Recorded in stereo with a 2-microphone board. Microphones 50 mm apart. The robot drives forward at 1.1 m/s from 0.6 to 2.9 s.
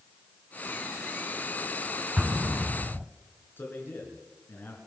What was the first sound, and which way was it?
An explosion, 15° right (ahead or behind).